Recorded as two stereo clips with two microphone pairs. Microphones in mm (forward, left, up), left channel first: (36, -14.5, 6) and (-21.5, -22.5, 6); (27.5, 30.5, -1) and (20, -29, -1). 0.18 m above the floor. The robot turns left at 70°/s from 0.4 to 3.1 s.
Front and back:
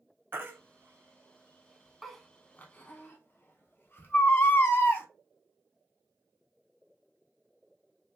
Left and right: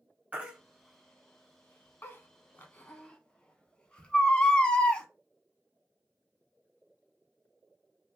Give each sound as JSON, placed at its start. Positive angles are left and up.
{"t": 0.3, "sound": "a baby crying", "azimuth_deg": -150, "distance_m": 0.5}